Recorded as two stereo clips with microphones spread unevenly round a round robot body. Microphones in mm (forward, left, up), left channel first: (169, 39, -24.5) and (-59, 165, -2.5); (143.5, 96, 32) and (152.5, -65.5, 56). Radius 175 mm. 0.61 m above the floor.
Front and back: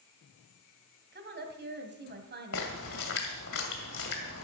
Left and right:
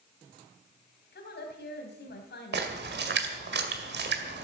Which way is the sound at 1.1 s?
100° left.